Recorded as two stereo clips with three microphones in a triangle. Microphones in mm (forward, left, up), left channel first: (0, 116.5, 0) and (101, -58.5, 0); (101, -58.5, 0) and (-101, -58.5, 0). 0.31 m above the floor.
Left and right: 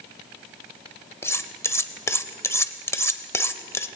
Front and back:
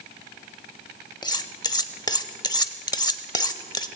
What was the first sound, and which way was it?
Cutlery clinking, 50° left.